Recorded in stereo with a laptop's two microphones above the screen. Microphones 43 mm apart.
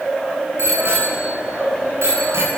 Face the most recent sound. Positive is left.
turn(degrees=-85)